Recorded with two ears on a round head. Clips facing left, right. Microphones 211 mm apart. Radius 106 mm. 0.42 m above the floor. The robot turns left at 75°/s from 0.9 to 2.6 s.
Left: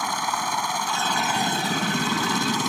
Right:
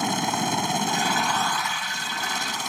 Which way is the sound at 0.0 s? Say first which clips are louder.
Right 4 dB; 155° right.